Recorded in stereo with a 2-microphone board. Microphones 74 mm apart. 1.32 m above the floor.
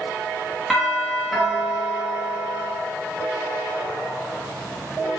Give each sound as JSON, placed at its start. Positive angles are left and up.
{"t": 0.7, "sound": "a doorbell", "side_deg": 0, "distance_m": 1.7}